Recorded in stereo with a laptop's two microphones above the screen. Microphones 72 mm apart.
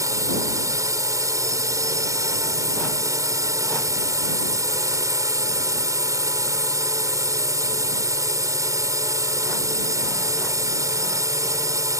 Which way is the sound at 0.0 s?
50° right (ahead or behind).